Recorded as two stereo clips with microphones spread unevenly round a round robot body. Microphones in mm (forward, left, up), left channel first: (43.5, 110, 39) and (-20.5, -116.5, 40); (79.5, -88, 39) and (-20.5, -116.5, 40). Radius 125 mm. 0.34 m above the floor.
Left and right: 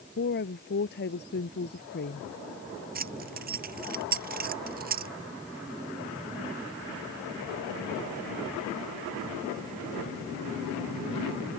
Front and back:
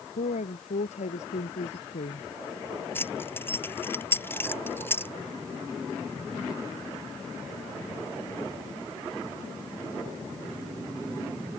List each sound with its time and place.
0.2 s a woman speaking: 25° left
3.0 s keys jangling: 55° right